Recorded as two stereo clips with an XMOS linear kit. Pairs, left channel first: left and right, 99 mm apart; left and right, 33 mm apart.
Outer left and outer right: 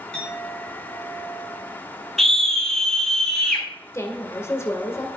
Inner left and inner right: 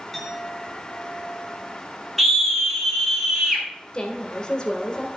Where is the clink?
10° left (ahead or behind), 4 m.